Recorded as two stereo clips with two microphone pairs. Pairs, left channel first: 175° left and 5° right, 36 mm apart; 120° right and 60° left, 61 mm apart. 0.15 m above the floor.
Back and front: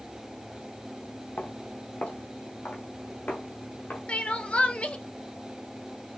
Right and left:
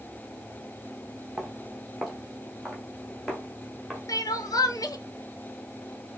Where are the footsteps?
145° left, 1.2 m; by 4.0 s 150° left, 2.5 m.